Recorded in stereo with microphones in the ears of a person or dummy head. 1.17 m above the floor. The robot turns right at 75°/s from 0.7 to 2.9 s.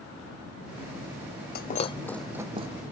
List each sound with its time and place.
1.6 s breaking glass: 50° left (ahead or behind); by 2.7 s 35° right (ahead or behind)